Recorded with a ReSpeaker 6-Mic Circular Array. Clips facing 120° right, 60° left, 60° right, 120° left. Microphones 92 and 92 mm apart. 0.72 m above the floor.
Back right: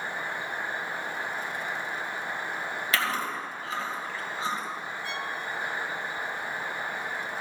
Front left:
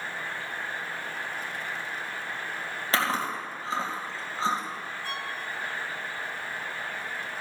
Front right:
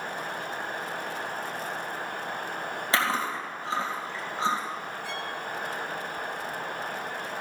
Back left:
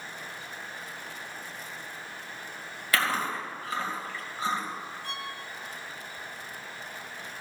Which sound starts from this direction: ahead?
Chewing, at 2.9 s.